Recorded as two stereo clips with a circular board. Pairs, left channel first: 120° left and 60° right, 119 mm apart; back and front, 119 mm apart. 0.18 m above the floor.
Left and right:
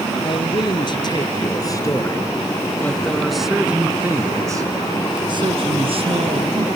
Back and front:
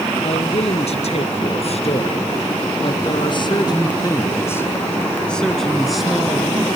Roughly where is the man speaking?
Behind.